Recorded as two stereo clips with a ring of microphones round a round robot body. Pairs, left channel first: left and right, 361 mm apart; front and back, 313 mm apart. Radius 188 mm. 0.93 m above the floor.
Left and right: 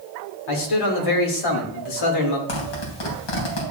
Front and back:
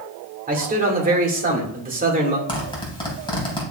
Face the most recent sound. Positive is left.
turn(degrees=75)